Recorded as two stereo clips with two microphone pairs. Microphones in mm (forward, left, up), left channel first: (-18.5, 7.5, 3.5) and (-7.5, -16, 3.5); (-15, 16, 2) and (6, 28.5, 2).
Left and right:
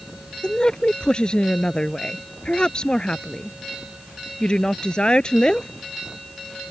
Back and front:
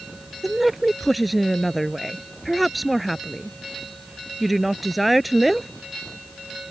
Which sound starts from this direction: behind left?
A woman speaking, at 0.4 s.